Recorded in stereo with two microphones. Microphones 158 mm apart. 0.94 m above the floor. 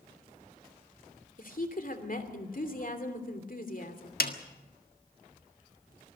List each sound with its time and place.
1.4 s a woman speaking: 60° left (ahead or behind), 2.5 m
4.2 s a snare drum: 75° left (ahead or behind), 1.6 m